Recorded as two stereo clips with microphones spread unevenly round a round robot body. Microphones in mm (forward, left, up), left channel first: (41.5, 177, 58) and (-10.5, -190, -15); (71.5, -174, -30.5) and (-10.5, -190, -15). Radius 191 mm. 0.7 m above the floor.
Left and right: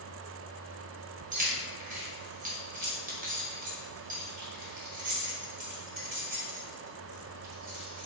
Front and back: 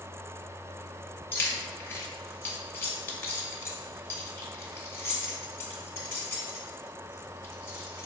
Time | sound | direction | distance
1.3 | keys jangling | 40° right | 0.9 m